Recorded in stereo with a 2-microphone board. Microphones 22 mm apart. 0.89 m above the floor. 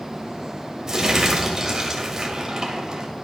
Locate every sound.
0.9 s crumpling: 20° right (ahead or behind), 1.8 m